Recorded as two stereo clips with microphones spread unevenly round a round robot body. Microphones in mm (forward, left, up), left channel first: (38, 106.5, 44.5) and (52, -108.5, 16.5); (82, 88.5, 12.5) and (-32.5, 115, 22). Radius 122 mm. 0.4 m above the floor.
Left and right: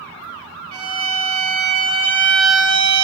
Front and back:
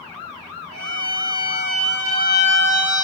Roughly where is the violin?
Right.